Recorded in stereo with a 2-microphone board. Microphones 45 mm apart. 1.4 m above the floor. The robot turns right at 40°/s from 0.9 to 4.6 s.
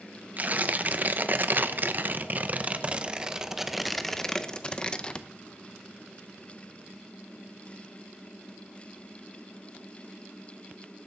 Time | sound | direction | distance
0.4 | tearing paper | 120° right | 0.6 m